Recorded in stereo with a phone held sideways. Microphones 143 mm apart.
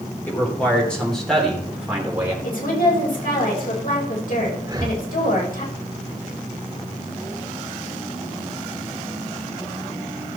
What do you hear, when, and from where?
0.3 s a man speaking: 15° left (ahead or behind), 3 m; by 2.3 s 15° right (ahead or behind), 2.5 m
2.4 s a woman speaking: 75° left (ahead or behind), 4.5 m
4.6 s breathing: 25° right (ahead or behind), 1.1 m